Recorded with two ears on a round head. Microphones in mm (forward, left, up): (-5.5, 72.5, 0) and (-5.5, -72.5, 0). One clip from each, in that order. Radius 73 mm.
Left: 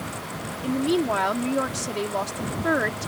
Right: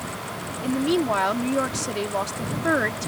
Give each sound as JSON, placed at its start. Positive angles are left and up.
{"t": 0.6, "sound": "a woman speaking", "side_deg": -5}